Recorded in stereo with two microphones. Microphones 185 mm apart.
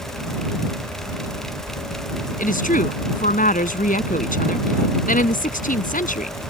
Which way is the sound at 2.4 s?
50° left (ahead or behind).